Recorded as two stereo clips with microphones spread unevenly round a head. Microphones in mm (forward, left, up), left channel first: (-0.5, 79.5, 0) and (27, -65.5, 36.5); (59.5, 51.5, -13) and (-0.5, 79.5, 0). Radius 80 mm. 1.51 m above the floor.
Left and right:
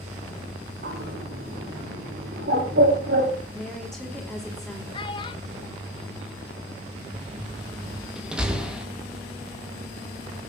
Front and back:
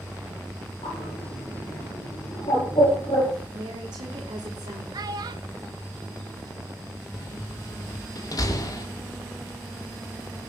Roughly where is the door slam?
Ahead.